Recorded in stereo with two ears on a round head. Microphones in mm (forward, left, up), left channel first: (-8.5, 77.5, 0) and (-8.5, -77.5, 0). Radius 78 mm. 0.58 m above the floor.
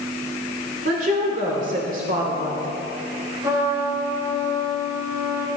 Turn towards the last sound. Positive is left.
turn(degrees=-15)  # may be behind; listen again after turning